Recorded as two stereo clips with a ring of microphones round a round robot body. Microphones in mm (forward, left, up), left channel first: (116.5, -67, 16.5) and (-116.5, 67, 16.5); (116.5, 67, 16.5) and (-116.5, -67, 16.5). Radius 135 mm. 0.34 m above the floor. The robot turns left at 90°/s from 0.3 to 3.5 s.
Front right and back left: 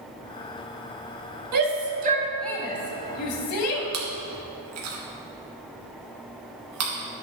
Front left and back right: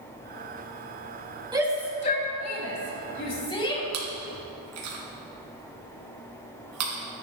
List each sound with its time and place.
1.5 s a shout: 140° left, 2.5 m; by 3.8 s 40° right, 2.5 m
3.9 s chewing: straight behind, 2.5 m